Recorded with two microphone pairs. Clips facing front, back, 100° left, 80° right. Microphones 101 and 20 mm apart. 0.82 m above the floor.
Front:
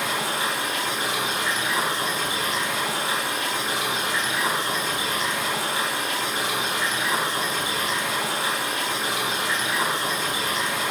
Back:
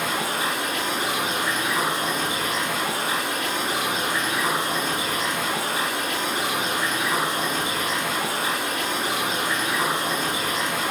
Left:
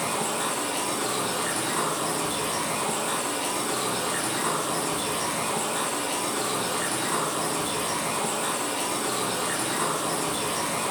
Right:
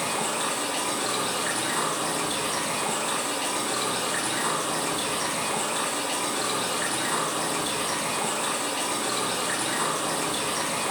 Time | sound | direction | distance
0.0 | running water | 145° right | 1.6 m